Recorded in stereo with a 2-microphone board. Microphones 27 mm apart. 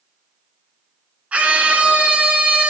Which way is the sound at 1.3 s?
60° right (ahead or behind).